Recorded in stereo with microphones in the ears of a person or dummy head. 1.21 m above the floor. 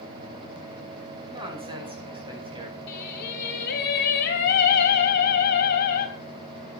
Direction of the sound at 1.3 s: 25° right (ahead or behind).